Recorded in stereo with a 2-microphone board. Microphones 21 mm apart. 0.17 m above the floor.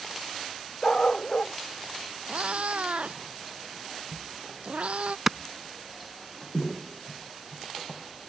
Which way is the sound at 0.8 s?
30° left (ahead or behind).